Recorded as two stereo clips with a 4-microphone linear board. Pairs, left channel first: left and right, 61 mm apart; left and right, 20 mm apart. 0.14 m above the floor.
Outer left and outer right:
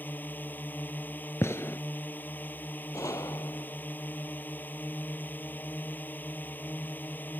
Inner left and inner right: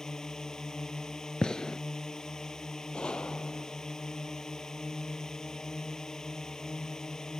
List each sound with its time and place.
0.0 s a drone: 30° left (ahead or behind)
1.4 s a gunshot: 45° left (ahead or behind)
2.9 s a gunshot: 60° left (ahead or behind)